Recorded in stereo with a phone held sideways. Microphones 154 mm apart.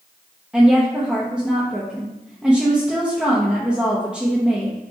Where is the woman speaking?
5° right (ahead or behind), 0.6 m.